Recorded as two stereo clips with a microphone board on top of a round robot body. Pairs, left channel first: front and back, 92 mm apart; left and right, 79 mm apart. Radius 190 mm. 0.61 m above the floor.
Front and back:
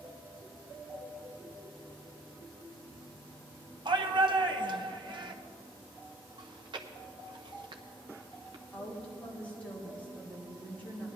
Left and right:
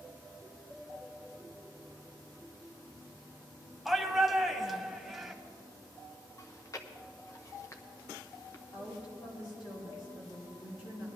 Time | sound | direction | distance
3.9 | a shout | straight behind | 1.5 m
6.4 | chewing | 140° left | 0.6 m
8.7 | a woman speaking | 75° left | 4.5 m